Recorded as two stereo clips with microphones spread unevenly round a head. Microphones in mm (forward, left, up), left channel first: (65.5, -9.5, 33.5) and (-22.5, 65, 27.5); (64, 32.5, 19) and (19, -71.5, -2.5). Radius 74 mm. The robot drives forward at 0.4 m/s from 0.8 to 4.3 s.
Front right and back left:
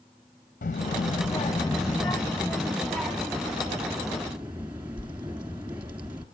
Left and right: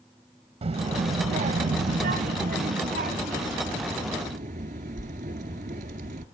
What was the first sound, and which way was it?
A child speaking, 70° right.